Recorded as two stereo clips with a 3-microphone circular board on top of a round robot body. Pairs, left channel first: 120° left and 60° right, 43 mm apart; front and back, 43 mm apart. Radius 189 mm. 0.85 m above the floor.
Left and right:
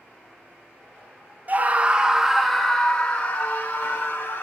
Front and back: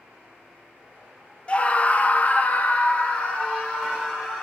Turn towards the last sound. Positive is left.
turn(degrees=70)